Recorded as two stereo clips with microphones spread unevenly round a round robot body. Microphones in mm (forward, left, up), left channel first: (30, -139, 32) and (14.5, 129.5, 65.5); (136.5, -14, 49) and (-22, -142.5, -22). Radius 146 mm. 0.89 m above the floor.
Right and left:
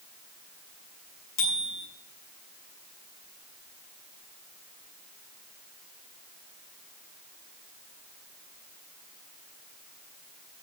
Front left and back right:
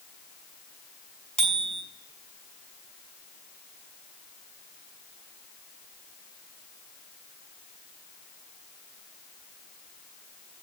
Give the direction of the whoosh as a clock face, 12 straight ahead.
No whoosh in this recording.